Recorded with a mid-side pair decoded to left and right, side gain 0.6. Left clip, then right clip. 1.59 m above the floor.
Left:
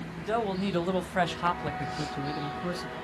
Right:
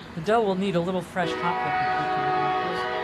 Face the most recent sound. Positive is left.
turn(degrees=35)